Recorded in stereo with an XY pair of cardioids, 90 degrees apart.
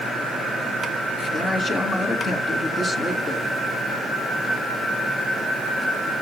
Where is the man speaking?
50° left, 3 m.